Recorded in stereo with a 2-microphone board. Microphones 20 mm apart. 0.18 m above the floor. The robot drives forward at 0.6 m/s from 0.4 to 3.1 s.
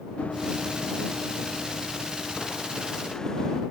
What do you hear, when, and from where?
0.2 s running footsteps: 80° left; by 3.6 s 25° left (ahead or behind)